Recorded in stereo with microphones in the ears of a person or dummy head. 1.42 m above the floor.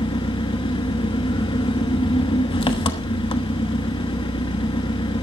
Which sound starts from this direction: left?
An engine running, at 0.0 s.